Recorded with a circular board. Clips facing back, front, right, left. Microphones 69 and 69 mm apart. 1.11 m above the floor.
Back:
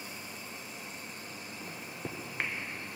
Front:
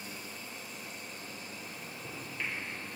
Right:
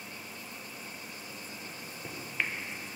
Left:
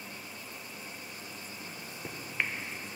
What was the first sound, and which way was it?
A microwave, 170° left.